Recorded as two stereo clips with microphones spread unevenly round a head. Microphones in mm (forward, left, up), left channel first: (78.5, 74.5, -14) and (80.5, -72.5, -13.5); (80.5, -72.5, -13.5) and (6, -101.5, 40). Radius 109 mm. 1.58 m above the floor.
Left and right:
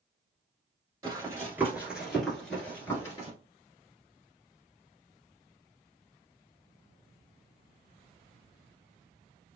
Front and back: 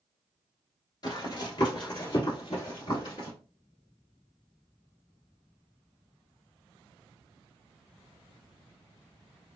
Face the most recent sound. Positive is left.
turn(degrees=80)